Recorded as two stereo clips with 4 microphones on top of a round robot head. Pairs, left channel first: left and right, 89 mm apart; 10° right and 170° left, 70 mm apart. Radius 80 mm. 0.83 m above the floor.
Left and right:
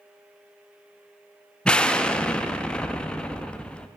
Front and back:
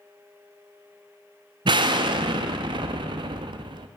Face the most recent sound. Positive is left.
turn(degrees=170)